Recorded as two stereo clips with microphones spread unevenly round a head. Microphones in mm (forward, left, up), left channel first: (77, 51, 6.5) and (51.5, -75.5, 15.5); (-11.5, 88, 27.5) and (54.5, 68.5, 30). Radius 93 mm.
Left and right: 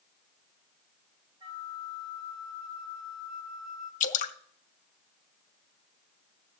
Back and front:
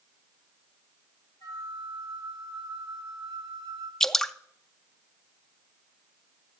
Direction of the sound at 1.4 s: Straight behind.